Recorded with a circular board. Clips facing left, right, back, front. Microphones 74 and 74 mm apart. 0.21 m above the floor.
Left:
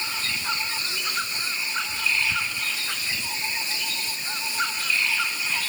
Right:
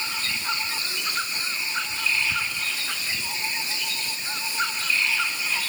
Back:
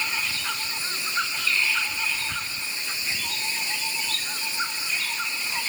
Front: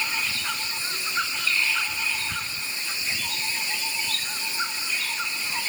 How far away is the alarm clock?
I don't hear an alarm clock.